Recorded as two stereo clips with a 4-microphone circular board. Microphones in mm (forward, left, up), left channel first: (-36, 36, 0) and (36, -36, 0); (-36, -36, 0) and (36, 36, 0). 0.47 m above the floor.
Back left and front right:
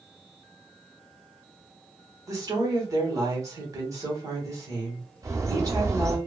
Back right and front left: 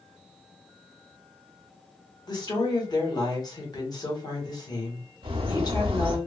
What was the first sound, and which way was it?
A woman speaking, 95° right.